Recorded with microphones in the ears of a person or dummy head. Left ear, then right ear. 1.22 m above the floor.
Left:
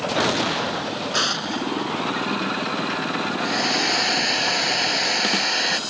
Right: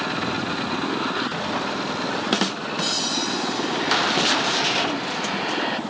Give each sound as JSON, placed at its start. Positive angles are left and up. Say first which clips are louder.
{"t": 1.1, "sound": "an explosion", "louder": "left 3 dB", "side_deg": 85}
{"t": 3.4, "sound": "a hair dryer", "louder": "left 3 dB", "side_deg": 80}